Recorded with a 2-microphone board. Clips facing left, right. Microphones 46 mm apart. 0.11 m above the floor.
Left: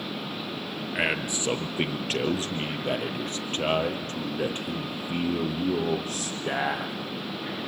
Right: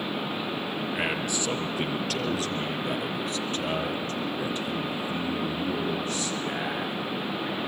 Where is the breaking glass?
No breaking glass in this recording.